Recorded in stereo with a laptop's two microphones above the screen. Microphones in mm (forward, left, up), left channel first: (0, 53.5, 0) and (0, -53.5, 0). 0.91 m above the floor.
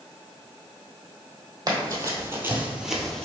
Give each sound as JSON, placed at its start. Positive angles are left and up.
{"t": 1.7, "sound": "running footsteps", "side_deg": -40, "distance_m": 1.3}